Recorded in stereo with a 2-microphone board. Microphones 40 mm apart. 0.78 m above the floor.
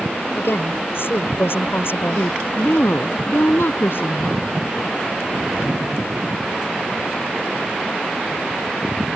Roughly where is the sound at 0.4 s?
Left.